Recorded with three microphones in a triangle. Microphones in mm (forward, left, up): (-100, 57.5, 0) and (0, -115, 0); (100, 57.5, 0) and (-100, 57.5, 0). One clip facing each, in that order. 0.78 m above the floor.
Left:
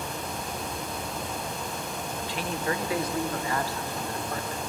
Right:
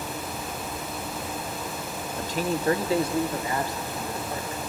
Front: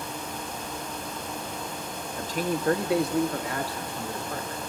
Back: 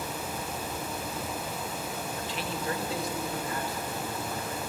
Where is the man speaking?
40° right, 0.7 m; by 4.6 s 15° left, 2 m.